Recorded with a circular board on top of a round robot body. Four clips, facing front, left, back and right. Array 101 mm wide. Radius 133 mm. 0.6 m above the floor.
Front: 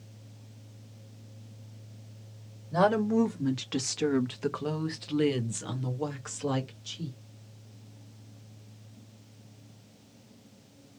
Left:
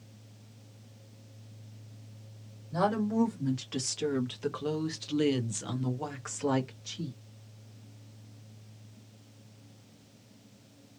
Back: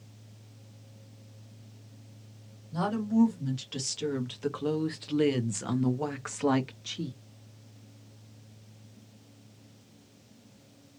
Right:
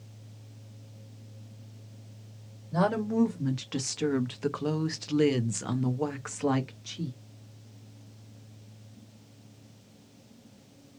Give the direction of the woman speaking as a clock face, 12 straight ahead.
1 o'clock.